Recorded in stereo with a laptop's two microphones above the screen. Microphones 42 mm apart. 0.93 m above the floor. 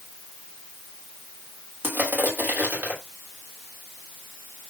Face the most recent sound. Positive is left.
turn(degrees=-40)  # may be behind; listen again after turning